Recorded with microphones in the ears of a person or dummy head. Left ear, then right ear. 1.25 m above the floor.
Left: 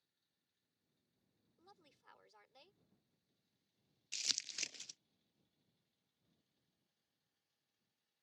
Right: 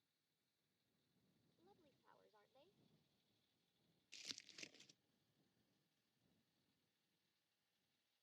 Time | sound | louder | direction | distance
1.6 | a woman speaking | left 8 dB | 75° left (ahead or behind) | ?
4.1 | crumpling | left 16 dB | 45° left (ahead or behind) | ?